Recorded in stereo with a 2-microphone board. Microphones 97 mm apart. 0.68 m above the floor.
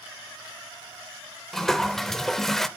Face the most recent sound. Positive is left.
turn(degrees=5)  # may be behind; listen again after turning